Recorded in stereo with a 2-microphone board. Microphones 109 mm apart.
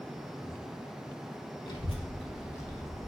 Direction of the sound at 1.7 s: 40° left (ahead or behind).